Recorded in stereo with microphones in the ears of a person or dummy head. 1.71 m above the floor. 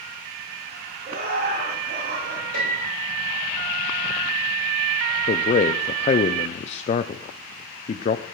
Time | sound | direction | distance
1.1 | laughter | 65° right (ahead or behind) | 6 m
2.5 | a piano | 80° right | 6 m
5.3 | a man speaking | 45° left (ahead or behind) | 0.5 m